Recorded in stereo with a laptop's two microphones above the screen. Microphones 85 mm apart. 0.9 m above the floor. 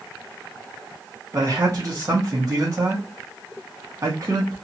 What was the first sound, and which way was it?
A man speaking, 45° right (ahead or behind).